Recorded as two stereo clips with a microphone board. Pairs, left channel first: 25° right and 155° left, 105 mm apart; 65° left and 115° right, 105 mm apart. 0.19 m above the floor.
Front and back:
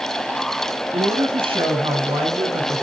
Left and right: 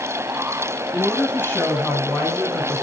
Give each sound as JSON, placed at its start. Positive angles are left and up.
{"t": 0.9, "sound": "a woman speaking", "azimuth_deg": 145, "distance_m": 3.5}